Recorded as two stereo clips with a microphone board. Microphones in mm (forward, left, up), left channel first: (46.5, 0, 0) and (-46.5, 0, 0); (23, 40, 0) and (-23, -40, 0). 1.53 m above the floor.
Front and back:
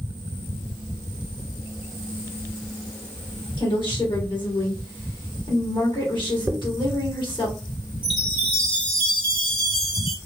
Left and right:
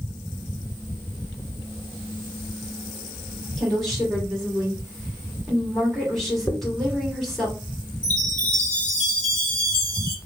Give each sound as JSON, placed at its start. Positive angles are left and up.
{"t": 3.6, "sound": "a woman speaking", "azimuth_deg": -30, "distance_m": 2.5}
{"t": 6.5, "sound": "a dropped coin", "azimuth_deg": 110, "distance_m": 1.3}
{"t": 8.0, "sound": "a chime", "azimuth_deg": -20, "distance_m": 3.0}